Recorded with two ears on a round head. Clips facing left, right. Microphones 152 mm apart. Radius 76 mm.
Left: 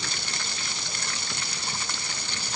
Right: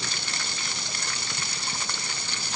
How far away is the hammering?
I don't hear hammering.